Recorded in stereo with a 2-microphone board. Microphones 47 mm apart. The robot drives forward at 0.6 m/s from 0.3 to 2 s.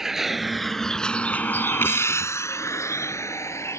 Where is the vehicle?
10° right (ahead or behind); by 3.8 s 70° left (ahead or behind).